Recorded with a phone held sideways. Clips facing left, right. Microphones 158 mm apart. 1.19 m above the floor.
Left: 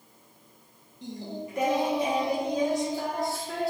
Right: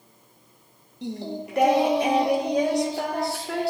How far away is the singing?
About 0.6 m.